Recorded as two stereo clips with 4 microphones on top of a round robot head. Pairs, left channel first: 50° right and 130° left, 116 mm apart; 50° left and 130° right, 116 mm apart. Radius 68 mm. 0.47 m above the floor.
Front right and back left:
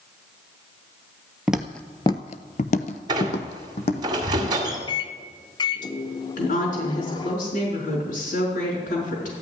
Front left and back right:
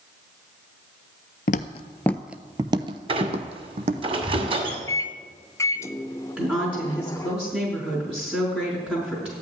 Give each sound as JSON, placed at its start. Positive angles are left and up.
{"t": 1.5, "sound": "footsteps", "azimuth_deg": 50, "distance_m": 0.6}
{"t": 3.1, "sound": "a squeak", "azimuth_deg": -175, "distance_m": 2.0}
{"t": 4.9, "sound": "a microwave", "azimuth_deg": -10, "distance_m": 0.8}
{"t": 6.4, "sound": "a woman speaking", "azimuth_deg": -50, "distance_m": 5.0}